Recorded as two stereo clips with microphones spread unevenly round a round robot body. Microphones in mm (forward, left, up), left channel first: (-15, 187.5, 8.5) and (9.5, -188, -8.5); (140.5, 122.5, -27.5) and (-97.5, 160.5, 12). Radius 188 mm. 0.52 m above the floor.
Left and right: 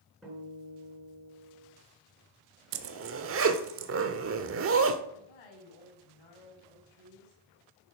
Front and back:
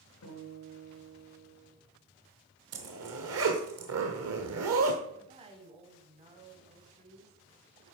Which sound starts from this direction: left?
A woman speaking, at 5.1 s.